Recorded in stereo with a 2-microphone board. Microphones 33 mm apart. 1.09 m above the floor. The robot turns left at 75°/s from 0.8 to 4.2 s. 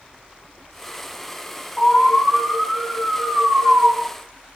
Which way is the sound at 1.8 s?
45° left.